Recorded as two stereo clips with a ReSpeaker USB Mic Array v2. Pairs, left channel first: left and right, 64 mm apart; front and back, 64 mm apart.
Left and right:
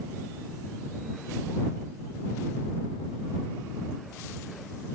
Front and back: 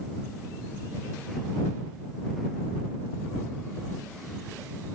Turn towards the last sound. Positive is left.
No sound to turn to.